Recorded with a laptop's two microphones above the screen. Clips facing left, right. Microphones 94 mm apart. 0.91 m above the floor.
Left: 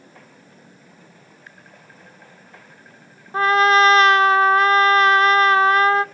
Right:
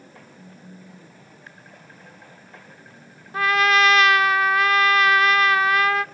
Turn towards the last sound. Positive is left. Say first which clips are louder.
# left 4 dB
turn(degrees=30)  # may be behind; listen again after turning